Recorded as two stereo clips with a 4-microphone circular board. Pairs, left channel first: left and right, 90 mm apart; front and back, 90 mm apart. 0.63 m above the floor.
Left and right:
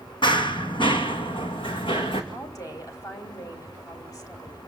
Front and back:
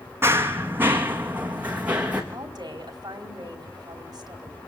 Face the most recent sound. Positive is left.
turn(degrees=140)